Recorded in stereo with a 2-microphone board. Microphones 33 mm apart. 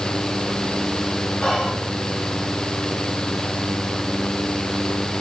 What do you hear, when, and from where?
1.4 s whispering: 25° left (ahead or behind), 2.5 m